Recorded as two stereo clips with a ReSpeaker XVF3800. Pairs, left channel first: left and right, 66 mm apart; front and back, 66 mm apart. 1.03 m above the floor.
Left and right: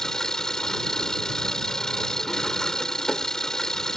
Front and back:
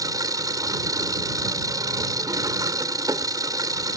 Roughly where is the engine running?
Behind.